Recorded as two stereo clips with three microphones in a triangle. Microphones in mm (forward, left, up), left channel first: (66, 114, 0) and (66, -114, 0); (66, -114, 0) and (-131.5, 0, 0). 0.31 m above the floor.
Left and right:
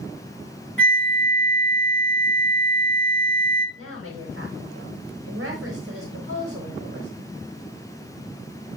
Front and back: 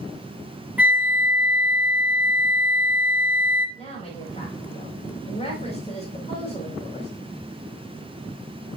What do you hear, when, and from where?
0.8 s a flute: 70° left, 0.9 m
3.8 s a woman speaking: 90° right, 3.5 m